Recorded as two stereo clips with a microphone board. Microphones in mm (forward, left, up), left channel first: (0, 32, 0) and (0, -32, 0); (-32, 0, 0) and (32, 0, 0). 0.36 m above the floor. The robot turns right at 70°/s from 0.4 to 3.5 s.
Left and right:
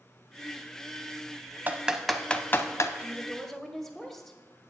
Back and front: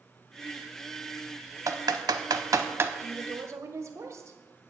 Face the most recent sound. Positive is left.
turn(degrees=5)